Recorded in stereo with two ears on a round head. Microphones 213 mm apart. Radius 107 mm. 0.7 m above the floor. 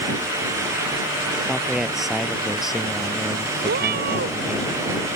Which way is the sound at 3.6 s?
40° right (ahead or behind).